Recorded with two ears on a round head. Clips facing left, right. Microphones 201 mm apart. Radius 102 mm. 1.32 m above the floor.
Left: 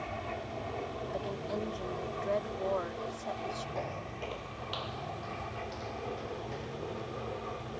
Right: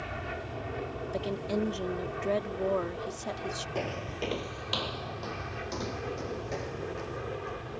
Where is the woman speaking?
40° right (ahead or behind).